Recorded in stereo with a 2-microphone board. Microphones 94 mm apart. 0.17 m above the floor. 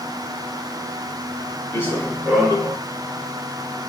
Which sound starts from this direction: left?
Running footsteps, at 1.7 s.